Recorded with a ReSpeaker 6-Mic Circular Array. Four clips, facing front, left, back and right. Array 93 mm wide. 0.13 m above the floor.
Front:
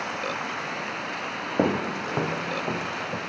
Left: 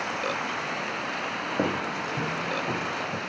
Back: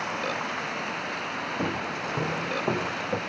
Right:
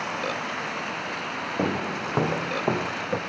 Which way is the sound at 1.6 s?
Straight ahead.